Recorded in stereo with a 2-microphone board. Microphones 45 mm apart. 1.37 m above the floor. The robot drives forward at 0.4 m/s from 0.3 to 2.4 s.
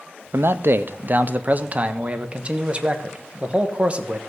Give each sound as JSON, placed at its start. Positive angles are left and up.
{"t": 0.3, "sound": "a man speaking", "side_deg": -65, "distance_m": 0.5}